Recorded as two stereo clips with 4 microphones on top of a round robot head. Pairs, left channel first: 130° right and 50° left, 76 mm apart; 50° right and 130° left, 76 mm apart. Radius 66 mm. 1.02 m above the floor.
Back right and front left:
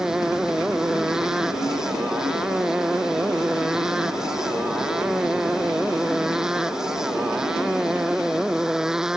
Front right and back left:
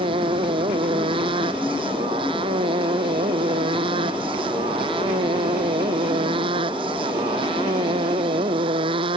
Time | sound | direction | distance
0.0 | a motorcycle | 135° left | ?